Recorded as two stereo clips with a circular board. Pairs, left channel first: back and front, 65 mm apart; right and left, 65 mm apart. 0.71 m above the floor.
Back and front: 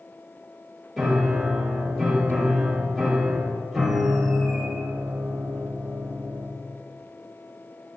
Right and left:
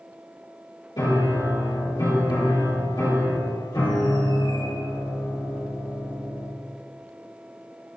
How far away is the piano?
About 4 m.